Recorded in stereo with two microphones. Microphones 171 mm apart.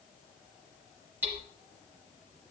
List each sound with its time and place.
1.2 s hammering: 15° right (ahead or behind), 3.5 m